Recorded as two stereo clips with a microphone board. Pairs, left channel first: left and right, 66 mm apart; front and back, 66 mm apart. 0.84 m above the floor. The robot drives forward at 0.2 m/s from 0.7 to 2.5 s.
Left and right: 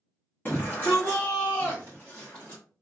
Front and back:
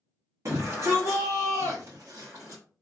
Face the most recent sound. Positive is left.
turn(degrees=155)